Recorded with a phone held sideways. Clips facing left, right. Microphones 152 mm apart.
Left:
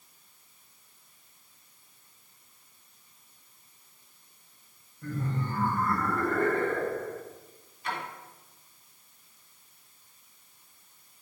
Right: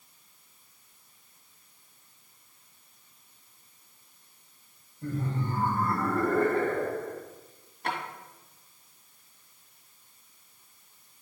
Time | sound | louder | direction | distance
5.0 | laughter | right 1 dB | 25° right (ahead or behind) | 4 m
7.8 | a drawer | right 2 dB | 65° right (ahead or behind) | 2 m